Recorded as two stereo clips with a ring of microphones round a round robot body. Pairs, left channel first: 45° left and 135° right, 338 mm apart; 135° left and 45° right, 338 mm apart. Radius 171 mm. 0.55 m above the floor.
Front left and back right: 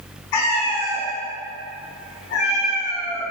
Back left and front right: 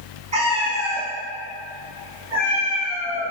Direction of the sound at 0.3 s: 30° left.